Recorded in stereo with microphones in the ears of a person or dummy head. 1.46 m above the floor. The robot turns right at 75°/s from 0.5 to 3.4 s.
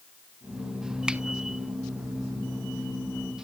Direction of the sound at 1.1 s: 5° right (ahead or behind).